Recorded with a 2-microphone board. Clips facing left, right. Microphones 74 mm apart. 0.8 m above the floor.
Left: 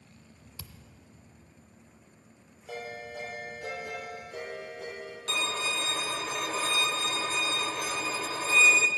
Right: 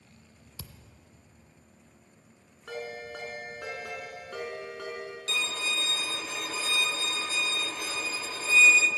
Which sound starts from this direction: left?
A violin, at 5.3 s.